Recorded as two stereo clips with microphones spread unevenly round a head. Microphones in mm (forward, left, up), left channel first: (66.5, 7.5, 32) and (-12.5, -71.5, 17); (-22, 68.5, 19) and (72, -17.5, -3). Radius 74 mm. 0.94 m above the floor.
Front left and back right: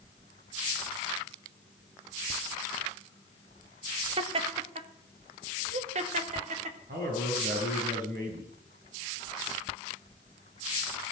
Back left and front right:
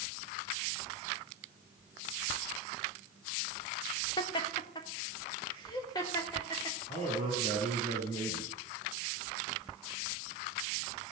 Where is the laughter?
160° right, 1.2 m; by 6.8 s 155° right, 3 m.